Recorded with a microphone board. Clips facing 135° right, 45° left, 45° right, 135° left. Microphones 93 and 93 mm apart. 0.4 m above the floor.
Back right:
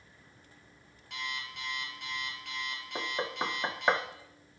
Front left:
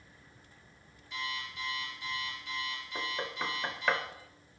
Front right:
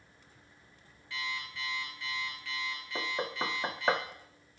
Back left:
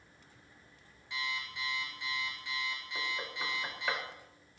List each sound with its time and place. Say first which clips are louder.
1.1 s an alarm clock: front left 1 dB, even; 155° right, 4.5 m
3.0 s knocking: back right 3 dB, front right 6 dB; 75° right, 0.7 m